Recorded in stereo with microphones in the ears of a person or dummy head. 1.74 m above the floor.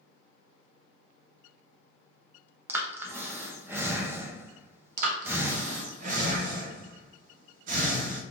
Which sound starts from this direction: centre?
Breathing, at 2.7 s.